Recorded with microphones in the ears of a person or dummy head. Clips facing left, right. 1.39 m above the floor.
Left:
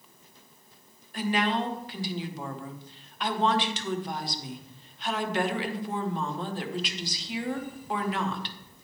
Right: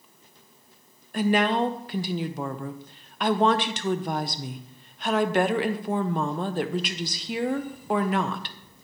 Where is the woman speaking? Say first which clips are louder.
Right 5 dB; 50° right (ahead or behind), 0.7 m.